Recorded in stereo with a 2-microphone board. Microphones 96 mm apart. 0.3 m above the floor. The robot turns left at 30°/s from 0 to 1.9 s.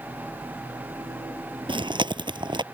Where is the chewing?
60° right (ahead or behind); by 2.6 s 55° right (ahead or behind).